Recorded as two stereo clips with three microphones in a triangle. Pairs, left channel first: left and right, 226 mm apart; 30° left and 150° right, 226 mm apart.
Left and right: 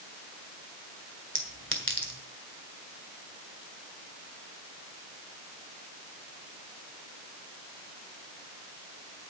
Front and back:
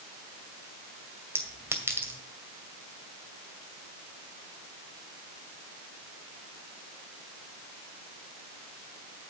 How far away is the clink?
About 2 m.